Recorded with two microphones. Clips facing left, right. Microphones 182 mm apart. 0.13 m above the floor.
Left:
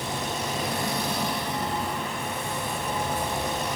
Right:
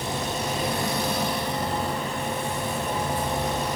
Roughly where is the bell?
I don't hear a bell.